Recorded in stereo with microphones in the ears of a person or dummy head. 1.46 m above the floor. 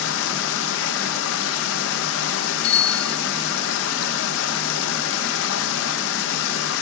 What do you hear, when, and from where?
0.0 s running water: 80° left, 1.2 m
2.6 s a bicycle bell: 40° left (ahead or behind), 2 m